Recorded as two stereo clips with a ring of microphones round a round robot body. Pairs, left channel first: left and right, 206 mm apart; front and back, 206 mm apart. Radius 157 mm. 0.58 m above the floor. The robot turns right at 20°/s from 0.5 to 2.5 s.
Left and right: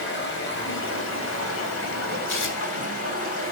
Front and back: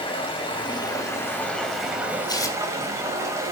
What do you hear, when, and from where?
0.0 s running water: 65° left, 3.5 m; by 3.5 s 105° left, 3.5 m
2.3 s tearing paper: 70° left, 2.5 m; by 2.6 s 75° left, 2.5 m